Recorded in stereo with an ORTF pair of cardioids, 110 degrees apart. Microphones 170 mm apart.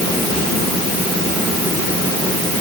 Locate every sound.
Only background noise.